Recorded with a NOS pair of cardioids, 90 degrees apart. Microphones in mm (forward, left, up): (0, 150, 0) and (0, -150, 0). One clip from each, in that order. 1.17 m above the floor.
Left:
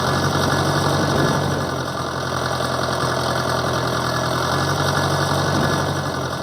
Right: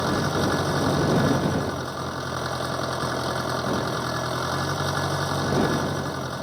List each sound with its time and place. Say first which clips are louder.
0.0 s an engine running: left 5 dB; 50° left